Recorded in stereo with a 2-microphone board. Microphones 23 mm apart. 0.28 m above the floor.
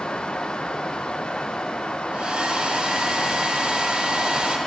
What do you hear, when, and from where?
2.1 s a hair dryer: 40° right (ahead or behind), 2.5 m